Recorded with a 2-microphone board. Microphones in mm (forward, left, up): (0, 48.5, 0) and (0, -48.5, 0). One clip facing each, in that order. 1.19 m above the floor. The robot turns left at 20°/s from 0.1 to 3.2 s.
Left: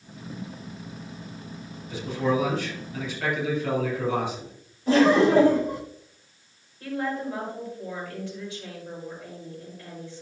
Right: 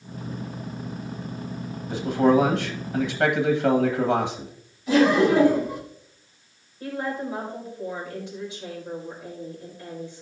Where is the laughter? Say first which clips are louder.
Even; 45° left (ahead or behind), 4 m.